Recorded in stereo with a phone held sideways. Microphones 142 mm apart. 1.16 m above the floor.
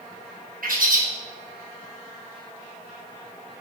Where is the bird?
85° right, 0.8 m.